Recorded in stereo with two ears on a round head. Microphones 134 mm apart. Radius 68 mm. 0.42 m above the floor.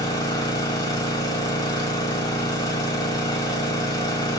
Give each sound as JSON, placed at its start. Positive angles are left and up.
{"t": 0.0, "sound": "an engine running", "side_deg": 25, "distance_m": 0.8}